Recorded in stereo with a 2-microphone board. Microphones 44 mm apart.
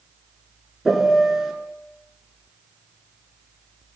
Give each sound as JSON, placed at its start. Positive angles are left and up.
{"t": 0.8, "sound": "a piano", "side_deg": -5, "distance_m": 1.2}